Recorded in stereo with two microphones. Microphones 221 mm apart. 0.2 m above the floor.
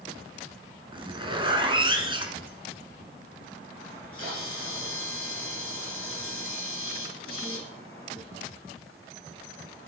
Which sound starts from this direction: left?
A camera shutter, at 3.9 s.